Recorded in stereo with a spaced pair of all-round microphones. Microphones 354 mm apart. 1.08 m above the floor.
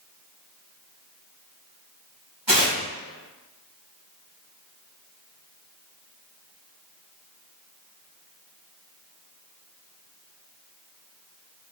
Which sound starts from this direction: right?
Tearing paper, at 2.5 s.